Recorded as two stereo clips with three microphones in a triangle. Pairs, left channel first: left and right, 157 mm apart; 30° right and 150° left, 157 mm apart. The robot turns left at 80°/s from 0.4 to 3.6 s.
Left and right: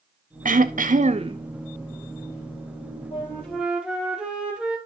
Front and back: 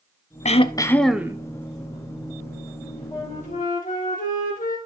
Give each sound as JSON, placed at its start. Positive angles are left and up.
{"t": 0.5, "sound": "throat clearing", "azimuth_deg": -70, "distance_m": 0.6}
{"t": 3.1, "sound": "a flute", "azimuth_deg": 35, "distance_m": 2.0}